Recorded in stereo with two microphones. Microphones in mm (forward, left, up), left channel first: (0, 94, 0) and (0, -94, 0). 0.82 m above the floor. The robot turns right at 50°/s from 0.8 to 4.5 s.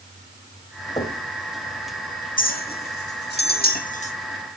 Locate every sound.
1.0 s knocking: 25° left (ahead or behind), 3.5 m; by 1.2 s 35° left (ahead or behind), 3.5 m
2.4 s a clink: 50° left (ahead or behind), 1.4 m; by 4.1 s 35° left (ahead or behind), 1.4 m